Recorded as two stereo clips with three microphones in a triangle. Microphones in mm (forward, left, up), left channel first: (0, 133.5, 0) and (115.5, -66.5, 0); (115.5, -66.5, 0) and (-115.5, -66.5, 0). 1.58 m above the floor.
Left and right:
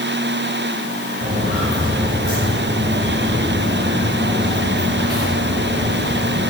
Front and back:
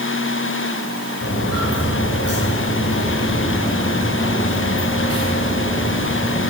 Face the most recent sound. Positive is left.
turn(degrees=-40)